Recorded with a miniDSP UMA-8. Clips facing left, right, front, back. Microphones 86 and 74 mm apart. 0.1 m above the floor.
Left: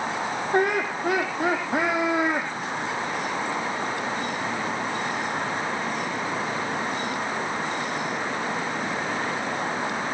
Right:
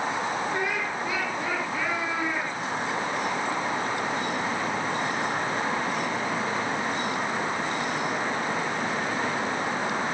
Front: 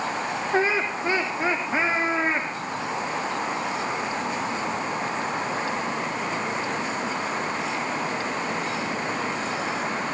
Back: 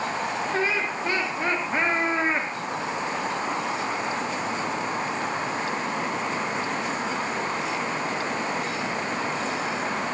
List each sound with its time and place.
0.5 s laughter: 60° left, 4.5 m; by 2.5 s 95° left, 5 m